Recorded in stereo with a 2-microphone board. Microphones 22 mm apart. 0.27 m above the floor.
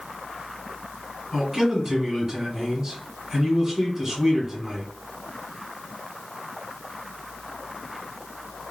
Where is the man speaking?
25° right (ahead or behind), 1.6 m.